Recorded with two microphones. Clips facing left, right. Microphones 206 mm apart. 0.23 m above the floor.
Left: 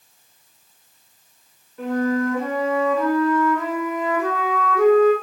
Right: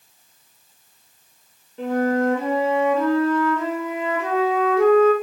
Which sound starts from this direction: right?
A flute, at 1.8 s.